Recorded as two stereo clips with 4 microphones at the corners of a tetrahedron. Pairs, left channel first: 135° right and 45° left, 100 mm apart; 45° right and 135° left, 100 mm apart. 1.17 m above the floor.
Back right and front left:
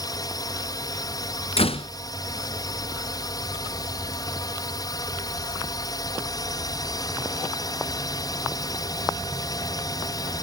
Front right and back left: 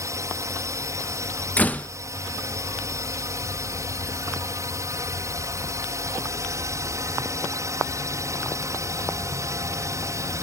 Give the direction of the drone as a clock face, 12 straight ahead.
6 o'clock.